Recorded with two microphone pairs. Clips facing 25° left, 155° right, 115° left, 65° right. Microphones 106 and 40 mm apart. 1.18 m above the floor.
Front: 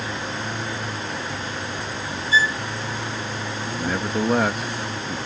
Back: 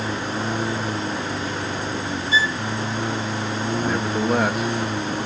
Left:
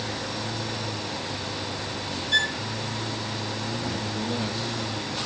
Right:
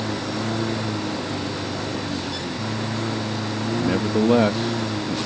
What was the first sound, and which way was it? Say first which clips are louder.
A lawn mower: back 4 dB, right 5 dB; 105° right.